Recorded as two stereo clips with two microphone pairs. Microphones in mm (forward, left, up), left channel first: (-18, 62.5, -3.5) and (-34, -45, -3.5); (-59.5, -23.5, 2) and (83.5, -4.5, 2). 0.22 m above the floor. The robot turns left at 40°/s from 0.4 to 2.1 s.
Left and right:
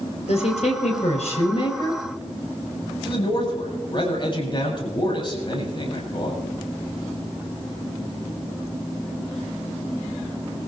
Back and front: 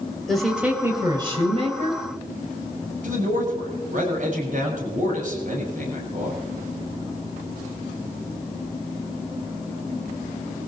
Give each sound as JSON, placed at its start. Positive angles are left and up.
{"t": 0.3, "sound": "a woman speaking", "azimuth_deg": 100, "distance_m": 5.5}
{"t": 3.0, "sound": "a man speaking", "azimuth_deg": 35, "distance_m": 7.5}